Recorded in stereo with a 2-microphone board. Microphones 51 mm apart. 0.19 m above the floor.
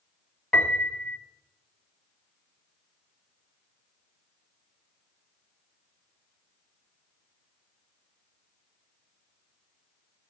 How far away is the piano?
About 1.7 m.